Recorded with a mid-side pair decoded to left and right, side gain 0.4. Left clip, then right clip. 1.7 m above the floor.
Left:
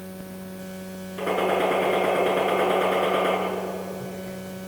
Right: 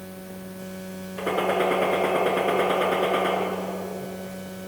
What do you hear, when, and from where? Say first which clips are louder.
1.2 s a gunshot: left 1 dB; 10° right, 7.5 m